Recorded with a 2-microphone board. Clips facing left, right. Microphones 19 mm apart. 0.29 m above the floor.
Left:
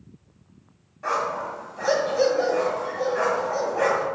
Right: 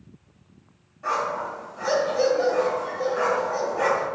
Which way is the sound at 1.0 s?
25° left (ahead or behind).